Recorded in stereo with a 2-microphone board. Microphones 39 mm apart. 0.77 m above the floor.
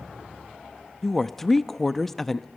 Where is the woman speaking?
10° left (ahead or behind), 0.7 m.